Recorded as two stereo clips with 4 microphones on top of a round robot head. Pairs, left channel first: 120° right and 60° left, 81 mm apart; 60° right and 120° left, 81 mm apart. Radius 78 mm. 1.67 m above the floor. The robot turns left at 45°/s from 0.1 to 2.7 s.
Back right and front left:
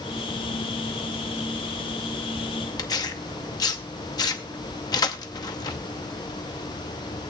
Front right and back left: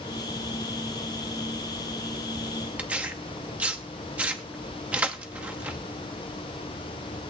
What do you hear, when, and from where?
2.8 s tearing paper: 165° right, 0.7 m